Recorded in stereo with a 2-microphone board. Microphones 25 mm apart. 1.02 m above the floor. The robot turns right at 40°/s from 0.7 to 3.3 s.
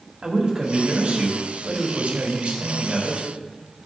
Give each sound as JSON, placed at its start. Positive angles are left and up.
{"t": 0.2, "sound": "a man speaking", "azimuth_deg": -145, "distance_m": 2.0}